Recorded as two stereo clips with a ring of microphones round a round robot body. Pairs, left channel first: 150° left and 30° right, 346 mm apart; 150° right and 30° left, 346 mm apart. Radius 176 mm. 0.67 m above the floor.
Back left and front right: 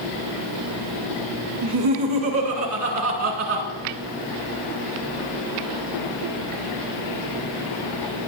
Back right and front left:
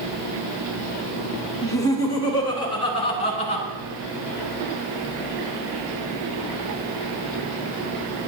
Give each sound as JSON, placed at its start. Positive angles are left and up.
{"t": 1.6, "sound": "laughter", "azimuth_deg": -70, "distance_m": 7.5}